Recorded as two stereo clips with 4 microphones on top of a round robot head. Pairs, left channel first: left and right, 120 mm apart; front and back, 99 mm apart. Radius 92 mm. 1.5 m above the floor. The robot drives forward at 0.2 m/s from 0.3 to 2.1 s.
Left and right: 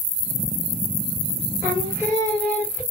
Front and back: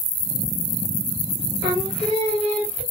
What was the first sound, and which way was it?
Singing, 160° left.